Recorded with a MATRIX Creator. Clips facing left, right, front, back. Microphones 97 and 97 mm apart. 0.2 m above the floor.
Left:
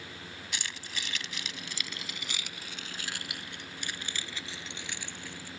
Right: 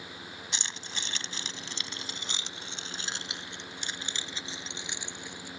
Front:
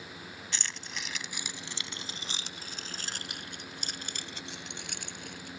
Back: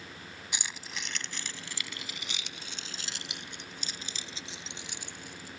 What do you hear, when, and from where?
0.5 s keys jangling: 120° right; by 5.5 s 20° right